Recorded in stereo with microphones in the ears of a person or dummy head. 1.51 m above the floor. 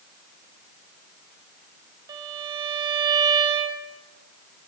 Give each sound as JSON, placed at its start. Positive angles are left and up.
{"t": 2.1, "sound": "a violin", "side_deg": -25, "distance_m": 2.5}